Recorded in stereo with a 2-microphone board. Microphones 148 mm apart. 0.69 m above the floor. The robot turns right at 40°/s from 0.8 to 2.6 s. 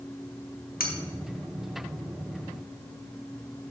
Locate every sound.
0.8 s cutlery clinking: 85° left, 1.0 m